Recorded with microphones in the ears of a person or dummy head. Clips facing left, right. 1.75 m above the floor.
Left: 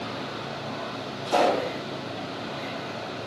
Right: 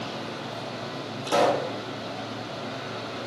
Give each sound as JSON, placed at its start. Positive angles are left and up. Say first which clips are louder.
{"t": 1.2, "sound": "a pop", "louder": "even", "side_deg": -60, "distance_m": 1.4}